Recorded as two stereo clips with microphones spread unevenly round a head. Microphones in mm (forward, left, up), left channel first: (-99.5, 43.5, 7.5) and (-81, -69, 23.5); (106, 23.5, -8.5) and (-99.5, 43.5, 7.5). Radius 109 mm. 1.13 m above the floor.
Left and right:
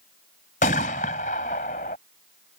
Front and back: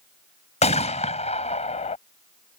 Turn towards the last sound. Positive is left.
turn(degrees=55)